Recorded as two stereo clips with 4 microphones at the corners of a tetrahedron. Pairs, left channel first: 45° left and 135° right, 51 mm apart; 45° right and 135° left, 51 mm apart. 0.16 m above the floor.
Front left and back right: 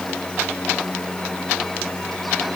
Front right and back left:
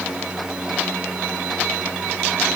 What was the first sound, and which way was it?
Only background noise.